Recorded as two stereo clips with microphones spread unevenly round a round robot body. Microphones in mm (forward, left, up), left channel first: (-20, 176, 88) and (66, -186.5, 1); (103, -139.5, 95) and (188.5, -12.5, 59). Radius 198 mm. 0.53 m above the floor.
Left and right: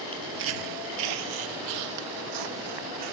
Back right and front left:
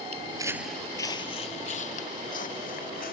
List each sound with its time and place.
0.1 s footsteps: 10° left; by 3.1 s 110° right